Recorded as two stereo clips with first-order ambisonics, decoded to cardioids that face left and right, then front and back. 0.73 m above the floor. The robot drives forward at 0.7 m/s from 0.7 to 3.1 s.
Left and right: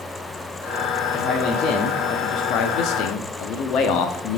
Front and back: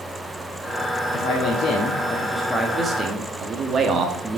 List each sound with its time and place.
1.1 s a man speaking: 40° left, 1.3 m; by 4.4 s 120° left, 1.0 m